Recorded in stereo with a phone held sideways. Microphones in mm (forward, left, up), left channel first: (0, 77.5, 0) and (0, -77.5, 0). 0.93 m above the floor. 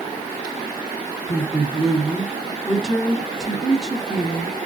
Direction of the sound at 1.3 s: Centre (ahead or behind).